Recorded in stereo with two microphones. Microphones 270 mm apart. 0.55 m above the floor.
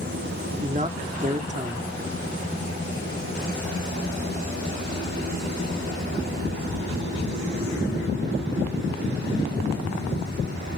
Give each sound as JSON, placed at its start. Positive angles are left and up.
{"t": 0.6, "sound": "a man speaking", "side_deg": -25, "distance_m": 1.1}